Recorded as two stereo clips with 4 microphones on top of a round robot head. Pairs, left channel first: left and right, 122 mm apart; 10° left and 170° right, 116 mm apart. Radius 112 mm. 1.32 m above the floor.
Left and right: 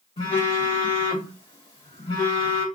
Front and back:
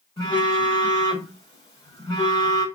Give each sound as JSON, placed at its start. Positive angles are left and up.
{"t": 0.2, "sound": "a phone buzzing", "azimuth_deg": 45, "distance_m": 1.7}